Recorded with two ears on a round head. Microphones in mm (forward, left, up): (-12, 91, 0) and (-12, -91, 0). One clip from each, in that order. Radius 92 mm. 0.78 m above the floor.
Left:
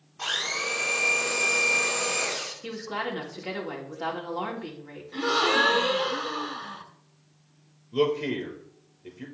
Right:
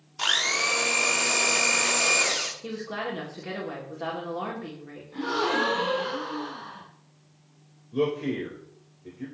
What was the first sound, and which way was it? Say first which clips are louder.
A blender: right 4 dB; 70° right (ahead or behind).